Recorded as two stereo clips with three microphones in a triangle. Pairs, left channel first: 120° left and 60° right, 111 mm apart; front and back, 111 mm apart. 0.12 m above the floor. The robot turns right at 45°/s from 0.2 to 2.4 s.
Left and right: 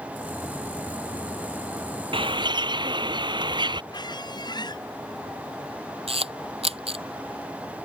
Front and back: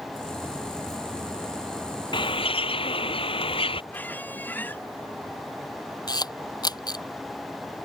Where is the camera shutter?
45° right.